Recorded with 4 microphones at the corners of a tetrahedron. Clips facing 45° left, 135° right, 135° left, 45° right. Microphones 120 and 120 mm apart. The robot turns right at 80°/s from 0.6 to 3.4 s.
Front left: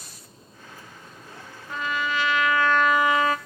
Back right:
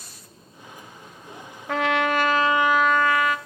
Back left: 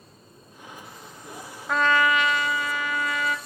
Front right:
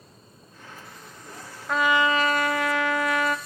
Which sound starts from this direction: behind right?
A trumpet, at 1.7 s.